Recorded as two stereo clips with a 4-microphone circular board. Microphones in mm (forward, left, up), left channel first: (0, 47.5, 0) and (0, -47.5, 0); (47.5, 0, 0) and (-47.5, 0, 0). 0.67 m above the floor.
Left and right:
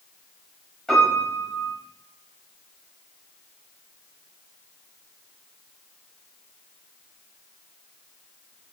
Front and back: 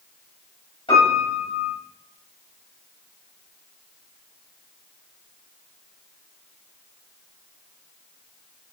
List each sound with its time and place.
0.9 s a piano: 5° left, 4 m